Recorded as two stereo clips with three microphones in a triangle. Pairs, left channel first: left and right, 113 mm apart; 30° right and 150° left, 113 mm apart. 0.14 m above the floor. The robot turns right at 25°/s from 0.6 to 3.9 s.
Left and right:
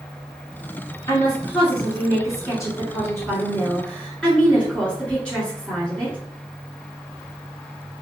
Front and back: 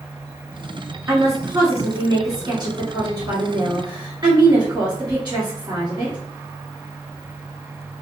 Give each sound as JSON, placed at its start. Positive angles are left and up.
{"t": 1.1, "sound": "a woman speaking", "azimuth_deg": 95, "distance_m": 1.5}